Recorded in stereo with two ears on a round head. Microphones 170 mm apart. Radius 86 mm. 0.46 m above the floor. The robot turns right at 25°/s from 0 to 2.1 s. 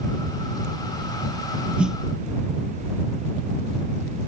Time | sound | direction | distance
1.8 | a snare drum | 5° right (ahead or behind) | ?